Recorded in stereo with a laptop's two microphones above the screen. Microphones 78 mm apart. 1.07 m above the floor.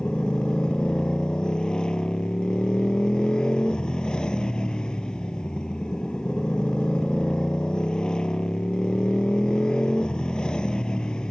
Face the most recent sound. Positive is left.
turn(degrees=10)  # may be behind; listen again after turning